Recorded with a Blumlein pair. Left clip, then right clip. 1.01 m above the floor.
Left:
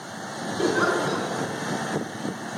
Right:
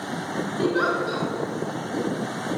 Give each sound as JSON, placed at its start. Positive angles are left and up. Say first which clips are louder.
{"t": 0.6, "sound": "a giggle", "louder": "left 1 dB", "azimuth_deg": 0, "distance_m": 4.0}